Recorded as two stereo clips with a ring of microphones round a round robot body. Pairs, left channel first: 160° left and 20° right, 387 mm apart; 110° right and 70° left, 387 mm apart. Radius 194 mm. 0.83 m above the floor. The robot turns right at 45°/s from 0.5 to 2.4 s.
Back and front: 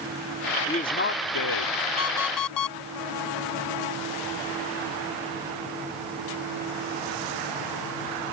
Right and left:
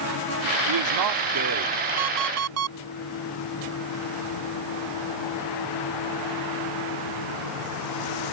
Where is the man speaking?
80° left; by 1.8 s 130° left.